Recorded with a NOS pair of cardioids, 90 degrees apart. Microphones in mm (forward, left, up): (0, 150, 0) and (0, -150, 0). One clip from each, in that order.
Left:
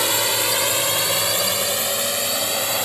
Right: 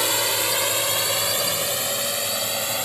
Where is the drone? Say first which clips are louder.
Left 2 dB; 10° left; by 2.9 s 20° left.